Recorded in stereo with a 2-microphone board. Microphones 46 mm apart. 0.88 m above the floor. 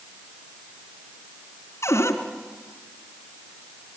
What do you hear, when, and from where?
1.8 s a cupboard door: 75° left (ahead or behind), 3 m